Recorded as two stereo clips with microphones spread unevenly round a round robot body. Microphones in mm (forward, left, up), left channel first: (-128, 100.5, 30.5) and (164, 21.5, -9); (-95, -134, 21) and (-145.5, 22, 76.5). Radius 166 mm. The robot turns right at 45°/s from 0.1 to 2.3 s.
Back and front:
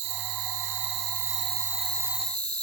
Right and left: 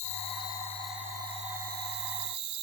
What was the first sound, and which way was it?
An insect, 20° right.